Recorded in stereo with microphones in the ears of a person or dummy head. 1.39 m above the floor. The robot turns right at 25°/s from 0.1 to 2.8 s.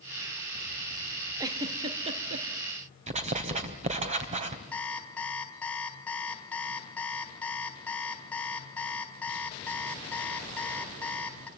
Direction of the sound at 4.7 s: 5° left (ahead or behind).